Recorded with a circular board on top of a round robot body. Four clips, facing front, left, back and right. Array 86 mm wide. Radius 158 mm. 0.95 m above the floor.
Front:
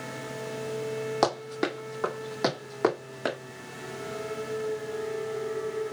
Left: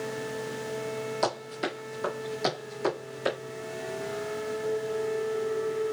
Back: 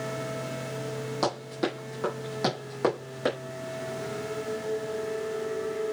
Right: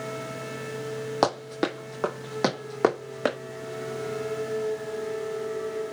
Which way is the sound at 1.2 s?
65° right.